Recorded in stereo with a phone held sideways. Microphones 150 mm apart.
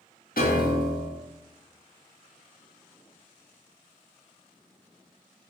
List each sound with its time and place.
0.4 s a piano: 75° left (ahead or behind), 0.8 m